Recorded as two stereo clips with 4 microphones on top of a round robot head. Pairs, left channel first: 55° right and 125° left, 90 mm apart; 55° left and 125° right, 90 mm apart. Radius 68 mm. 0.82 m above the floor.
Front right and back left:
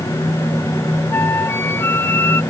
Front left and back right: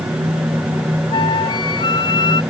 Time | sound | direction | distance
1.1 | a flute | 15° left | ?